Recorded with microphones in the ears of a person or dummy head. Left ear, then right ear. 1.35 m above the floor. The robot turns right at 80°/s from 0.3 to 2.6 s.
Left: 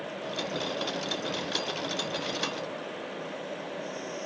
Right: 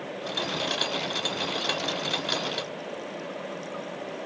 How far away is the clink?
No clink in this recording.